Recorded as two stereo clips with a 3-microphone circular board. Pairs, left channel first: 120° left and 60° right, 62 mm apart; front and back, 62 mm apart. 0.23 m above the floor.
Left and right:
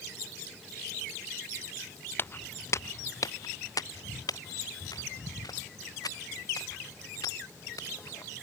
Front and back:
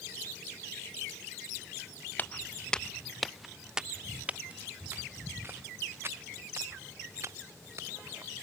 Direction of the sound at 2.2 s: 65° left.